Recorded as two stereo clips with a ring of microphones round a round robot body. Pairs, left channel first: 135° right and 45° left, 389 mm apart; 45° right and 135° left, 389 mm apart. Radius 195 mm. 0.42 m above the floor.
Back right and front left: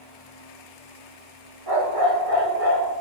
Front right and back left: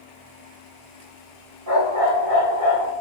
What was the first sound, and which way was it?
A dog barking, 85° left.